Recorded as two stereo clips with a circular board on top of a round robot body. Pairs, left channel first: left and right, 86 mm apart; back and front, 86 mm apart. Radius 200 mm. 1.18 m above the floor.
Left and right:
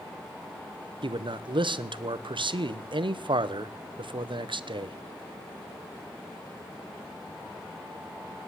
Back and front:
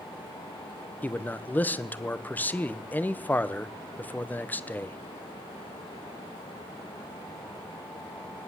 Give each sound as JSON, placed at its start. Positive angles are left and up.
{"t": 1.0, "sound": "a man speaking", "azimuth_deg": -110, "distance_m": 1.1}